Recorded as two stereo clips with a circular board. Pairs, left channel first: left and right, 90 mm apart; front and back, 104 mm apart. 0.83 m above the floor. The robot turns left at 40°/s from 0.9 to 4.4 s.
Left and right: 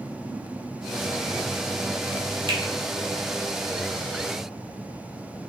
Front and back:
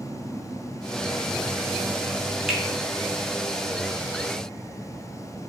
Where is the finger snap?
95° right, 0.8 m; by 2.6 s 100° right, 0.8 m.